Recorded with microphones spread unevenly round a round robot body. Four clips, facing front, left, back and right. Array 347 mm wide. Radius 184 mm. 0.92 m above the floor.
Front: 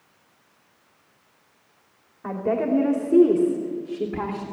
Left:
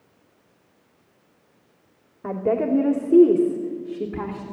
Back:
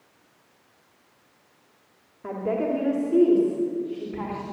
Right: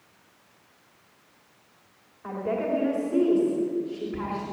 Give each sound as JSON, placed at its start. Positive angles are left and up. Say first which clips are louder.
{"t": 2.2, "sound": "a woman speaking", "louder": "left 6 dB, front 2 dB", "azimuth_deg": 100, "distance_m": 3.0}